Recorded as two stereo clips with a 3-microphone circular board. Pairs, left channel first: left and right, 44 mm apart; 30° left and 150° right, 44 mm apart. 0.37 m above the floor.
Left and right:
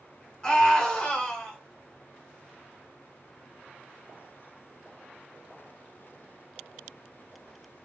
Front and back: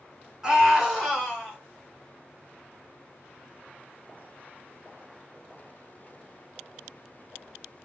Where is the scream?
150° left, 1.6 m; by 1.6 s 85° left, 1.5 m.